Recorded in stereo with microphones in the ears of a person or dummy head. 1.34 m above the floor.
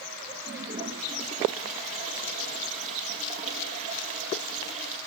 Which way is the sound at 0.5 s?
40° right (ahead or behind).